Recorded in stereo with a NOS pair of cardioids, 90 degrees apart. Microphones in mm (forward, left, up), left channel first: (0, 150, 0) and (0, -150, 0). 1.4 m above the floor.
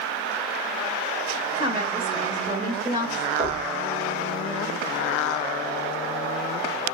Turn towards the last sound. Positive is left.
turn(degrees=-20)